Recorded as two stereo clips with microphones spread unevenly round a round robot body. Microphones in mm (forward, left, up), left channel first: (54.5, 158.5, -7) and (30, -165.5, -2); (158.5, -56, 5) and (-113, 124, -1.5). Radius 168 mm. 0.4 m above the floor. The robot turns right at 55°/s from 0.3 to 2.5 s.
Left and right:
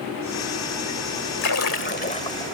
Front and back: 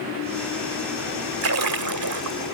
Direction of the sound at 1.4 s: 110° left.